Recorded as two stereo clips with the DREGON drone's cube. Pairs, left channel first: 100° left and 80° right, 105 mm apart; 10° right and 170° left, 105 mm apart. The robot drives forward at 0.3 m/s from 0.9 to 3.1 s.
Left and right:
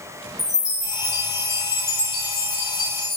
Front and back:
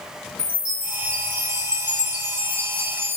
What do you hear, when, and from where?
0.4 s a chime: 95° left, 4 m; by 3.2 s 100° left, 4.5 m